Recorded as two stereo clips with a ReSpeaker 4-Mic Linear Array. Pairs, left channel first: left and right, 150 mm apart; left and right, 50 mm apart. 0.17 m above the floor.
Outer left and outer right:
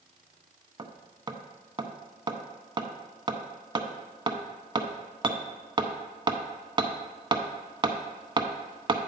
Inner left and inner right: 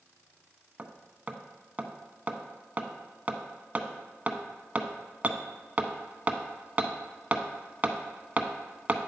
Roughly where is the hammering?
Right.